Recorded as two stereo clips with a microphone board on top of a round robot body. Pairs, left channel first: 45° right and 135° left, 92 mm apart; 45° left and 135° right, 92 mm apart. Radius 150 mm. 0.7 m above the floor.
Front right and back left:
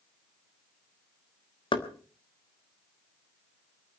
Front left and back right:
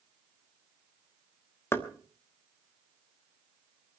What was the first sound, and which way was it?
Knocking, 20° right.